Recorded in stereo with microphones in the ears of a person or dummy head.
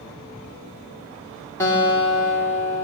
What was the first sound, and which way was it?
A guitar, 15° left (ahead or behind).